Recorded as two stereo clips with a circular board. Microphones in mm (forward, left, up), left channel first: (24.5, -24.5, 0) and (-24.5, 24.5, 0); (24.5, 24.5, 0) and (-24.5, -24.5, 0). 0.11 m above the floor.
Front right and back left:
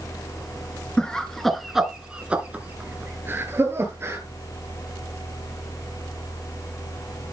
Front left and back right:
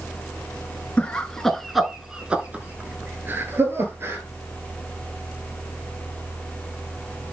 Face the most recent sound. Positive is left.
turn(degrees=180)